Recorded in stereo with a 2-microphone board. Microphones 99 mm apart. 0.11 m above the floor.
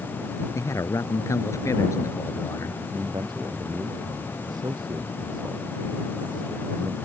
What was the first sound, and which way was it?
A man speaking, 35° left (ahead or behind).